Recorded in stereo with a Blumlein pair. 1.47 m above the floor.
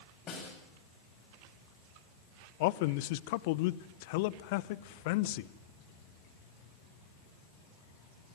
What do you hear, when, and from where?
0.3 s a snare drum: 30° left, 9 m
2.6 s a man speaking: 50° left, 0.9 m